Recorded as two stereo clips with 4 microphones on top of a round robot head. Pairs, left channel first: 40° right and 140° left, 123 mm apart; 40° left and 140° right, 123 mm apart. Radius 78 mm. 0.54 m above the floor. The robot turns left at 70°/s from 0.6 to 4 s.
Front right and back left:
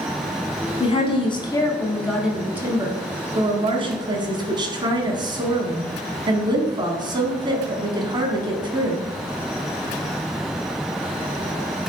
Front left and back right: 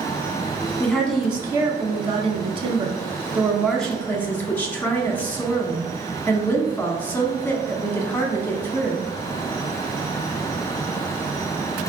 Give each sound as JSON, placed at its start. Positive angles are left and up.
{"t": 0.8, "sound": "a woman speaking", "azimuth_deg": -25, "distance_m": 1.2}